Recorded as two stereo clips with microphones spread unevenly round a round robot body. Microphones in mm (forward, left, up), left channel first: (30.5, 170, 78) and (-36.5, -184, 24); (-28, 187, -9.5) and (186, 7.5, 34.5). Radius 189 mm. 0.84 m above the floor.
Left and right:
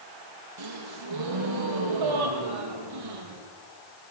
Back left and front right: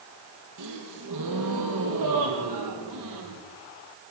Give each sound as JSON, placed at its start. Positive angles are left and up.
{"t": 0.6, "sound": "a gasp", "azimuth_deg": -70, "distance_m": 4.0}